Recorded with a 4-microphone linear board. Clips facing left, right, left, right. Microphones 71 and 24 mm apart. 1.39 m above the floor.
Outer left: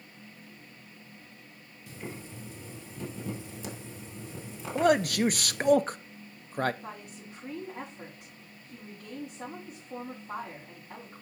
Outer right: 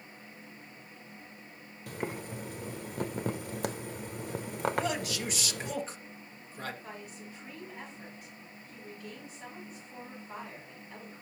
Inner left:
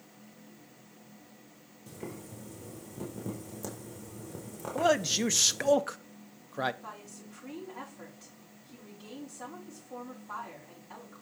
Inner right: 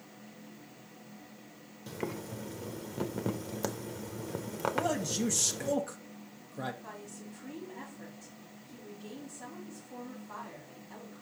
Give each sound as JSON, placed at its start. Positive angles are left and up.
{"t": 1.9, "sound": "boiling", "side_deg": -60, "distance_m": 0.9}
{"t": 4.8, "sound": "a man speaking", "side_deg": 50, "distance_m": 0.6}
{"t": 6.8, "sound": "a woman speaking", "side_deg": 65, "distance_m": 4.5}